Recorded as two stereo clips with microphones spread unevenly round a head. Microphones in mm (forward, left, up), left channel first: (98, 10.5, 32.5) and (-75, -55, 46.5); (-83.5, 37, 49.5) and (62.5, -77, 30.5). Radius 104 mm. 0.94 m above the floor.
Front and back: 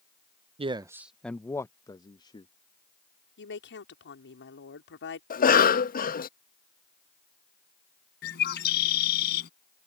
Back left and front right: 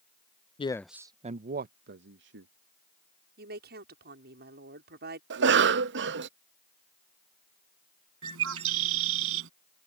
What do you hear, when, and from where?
0.6 s a man speaking: 175° left; by 2.5 s 45° right
3.4 s a woman speaking: straight ahead
5.3 s a cough: 20° right
8.2 s a bird: 15° right